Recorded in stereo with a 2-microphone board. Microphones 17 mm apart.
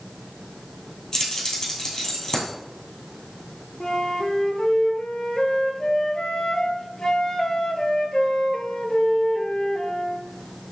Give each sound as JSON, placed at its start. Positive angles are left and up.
{"t": 1.1, "sound": "keys jangling", "side_deg": 40, "distance_m": 2.0}
{"t": 3.8, "sound": "a flute", "side_deg": 45, "distance_m": 0.7}